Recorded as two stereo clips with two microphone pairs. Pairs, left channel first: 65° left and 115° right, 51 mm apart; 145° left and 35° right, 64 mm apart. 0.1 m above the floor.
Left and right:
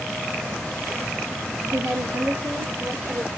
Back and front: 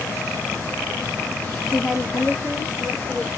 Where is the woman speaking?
115° right, 2 m; by 3.3 s 145° right, 2.5 m.